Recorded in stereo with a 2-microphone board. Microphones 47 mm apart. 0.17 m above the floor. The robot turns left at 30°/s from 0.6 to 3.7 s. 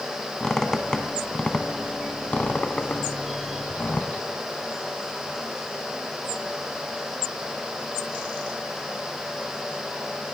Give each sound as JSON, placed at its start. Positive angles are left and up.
{"t": 0.4, "sound": "a squeak", "side_deg": 10, "distance_m": 0.6}